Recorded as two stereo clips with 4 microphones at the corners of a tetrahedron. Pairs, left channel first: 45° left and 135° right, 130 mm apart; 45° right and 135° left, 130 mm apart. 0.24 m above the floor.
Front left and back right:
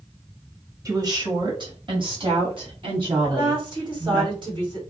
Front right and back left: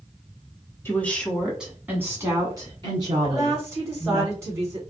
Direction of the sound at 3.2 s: 165° right.